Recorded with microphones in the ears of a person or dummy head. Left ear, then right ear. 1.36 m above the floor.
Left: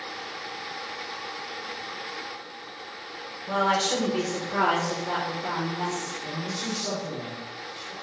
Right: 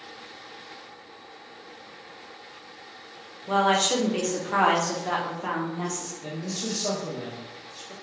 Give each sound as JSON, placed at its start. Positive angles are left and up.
{"t": 3.5, "sound": "a woman speaking", "side_deg": -15, "distance_m": 0.7}
{"t": 6.2, "sound": "a man speaking", "side_deg": -80, "distance_m": 1.2}